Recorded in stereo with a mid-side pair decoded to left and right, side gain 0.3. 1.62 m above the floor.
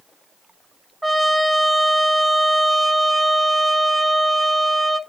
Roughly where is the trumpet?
Ahead.